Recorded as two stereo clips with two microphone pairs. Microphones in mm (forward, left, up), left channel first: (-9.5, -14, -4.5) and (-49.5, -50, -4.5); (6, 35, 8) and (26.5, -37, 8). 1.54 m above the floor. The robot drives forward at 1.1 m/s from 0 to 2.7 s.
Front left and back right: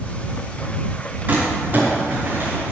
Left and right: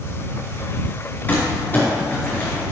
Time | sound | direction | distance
1.3 | crumpling | 165° left | 4.5 m